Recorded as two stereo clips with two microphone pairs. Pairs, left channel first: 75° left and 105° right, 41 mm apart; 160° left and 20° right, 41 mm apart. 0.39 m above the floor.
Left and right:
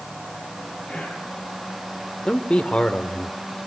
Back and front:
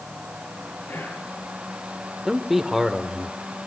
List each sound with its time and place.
0.9 s whispering: 155° left, 7.5 m
2.2 s a man speaking: 50° left, 1.0 m